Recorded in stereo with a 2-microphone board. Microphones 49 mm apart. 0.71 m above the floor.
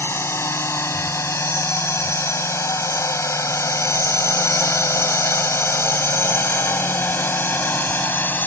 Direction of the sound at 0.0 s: 60° left (ahead or behind).